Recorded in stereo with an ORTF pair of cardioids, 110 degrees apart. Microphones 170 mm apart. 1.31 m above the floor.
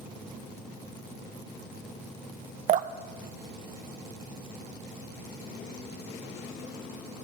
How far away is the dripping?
About 0.7 m.